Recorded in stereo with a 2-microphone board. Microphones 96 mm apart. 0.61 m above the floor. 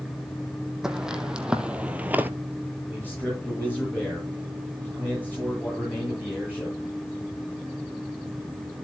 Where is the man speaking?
15° left (ahead or behind), 8 m.